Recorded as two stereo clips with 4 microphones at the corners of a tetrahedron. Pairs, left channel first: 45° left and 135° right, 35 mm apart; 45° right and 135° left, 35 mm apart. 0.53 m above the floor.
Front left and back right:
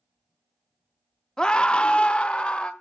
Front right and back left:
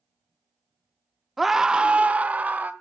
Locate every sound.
1.4 s a scream: 50° left, 0.7 m; by 2.7 s 100° left, 2.0 m